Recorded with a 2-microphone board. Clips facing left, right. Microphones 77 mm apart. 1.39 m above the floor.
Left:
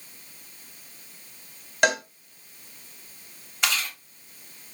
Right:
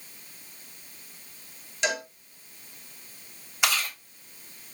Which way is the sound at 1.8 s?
60° left (ahead or behind).